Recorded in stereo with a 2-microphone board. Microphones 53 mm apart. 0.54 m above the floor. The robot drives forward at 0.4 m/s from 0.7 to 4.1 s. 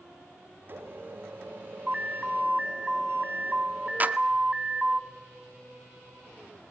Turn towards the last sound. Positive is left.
turn(degrees=-35)  # may be behind; listen again after turning